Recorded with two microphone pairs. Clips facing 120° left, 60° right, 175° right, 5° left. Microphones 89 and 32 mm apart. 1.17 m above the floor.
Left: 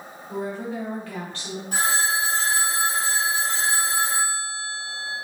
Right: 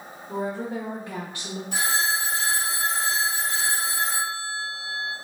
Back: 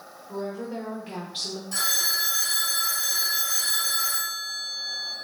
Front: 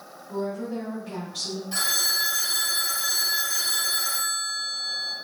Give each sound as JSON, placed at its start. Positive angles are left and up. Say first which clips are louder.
{"t": 0.3, "sound": "a woman speaking", "louder": "right 1 dB, front 2 dB", "azimuth_deg": -110, "distance_m": 1.4}
{"t": 1.7, "sound": "a phone ringing", "louder": "left 2 dB, front 1 dB", "azimuth_deg": 70, "distance_m": 2.0}